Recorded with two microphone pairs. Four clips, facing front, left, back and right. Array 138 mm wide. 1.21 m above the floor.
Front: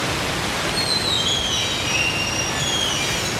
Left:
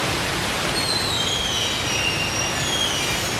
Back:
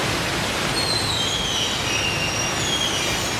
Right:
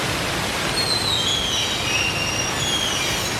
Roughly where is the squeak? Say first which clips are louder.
Even, even; ahead right.